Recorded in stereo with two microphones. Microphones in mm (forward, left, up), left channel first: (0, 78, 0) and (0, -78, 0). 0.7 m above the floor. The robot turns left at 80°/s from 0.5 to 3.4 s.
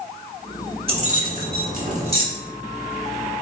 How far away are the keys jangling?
About 1.0 m.